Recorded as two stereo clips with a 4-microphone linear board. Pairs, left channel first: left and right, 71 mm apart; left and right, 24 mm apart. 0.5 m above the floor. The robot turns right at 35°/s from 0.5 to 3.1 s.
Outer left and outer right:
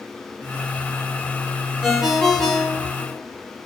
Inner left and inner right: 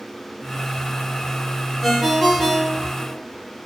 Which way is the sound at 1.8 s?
10° right.